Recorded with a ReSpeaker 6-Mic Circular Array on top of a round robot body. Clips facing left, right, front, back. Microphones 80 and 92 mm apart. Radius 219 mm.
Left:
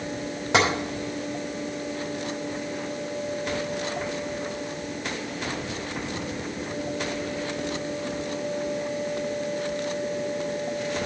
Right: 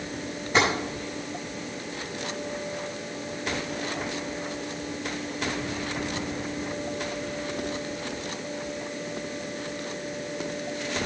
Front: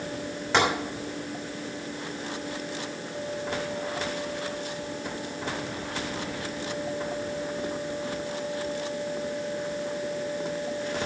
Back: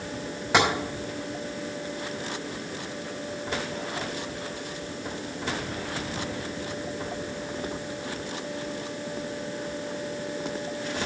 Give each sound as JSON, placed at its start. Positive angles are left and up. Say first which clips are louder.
{"t": 0.5, "sound": "tapping", "louder": "left 1 dB, back 1 dB", "azimuth_deg": 100, "distance_m": 5.0}